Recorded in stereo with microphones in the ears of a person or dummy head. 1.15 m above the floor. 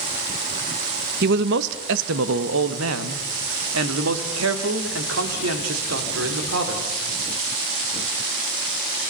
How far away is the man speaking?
About 1.0 m.